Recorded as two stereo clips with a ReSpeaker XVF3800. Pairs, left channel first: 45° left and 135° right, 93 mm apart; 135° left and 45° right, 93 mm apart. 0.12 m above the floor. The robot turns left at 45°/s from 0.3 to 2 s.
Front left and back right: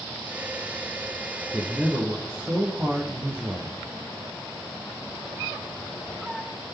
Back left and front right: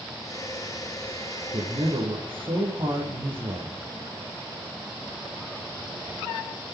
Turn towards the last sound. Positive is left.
turn(degrees=-70)